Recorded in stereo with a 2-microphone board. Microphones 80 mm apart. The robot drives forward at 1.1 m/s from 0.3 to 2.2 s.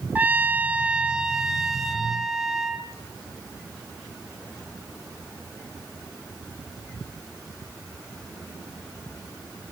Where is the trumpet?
20° right (ahead or behind), 0.7 m; by 2.9 s 5° right (ahead or behind), 2 m.